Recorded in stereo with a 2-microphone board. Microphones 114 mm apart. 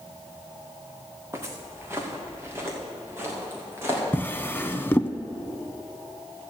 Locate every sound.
1.3 s footsteps: 25° right (ahead or behind), 1.9 m; by 4.0 s 20° right (ahead or behind), 4.5 m
4.1 s a drawer: 20° left (ahead or behind), 0.6 m